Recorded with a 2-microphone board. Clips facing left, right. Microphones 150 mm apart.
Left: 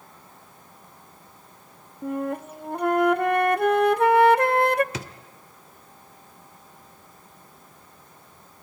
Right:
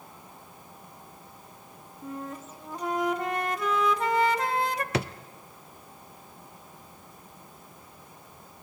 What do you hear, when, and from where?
2.0 s a flute: 60° left (ahead or behind), 0.5 m
4.9 s a drawer: 65° right (ahead or behind), 0.8 m